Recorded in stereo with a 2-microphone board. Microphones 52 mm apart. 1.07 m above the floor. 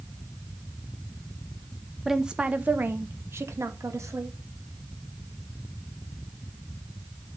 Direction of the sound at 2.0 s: 5° right (ahead or behind).